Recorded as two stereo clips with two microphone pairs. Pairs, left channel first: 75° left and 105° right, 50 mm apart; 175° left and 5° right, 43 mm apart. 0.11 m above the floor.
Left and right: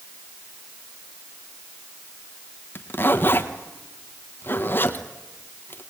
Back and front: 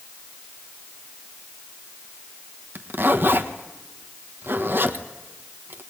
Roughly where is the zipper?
Ahead left.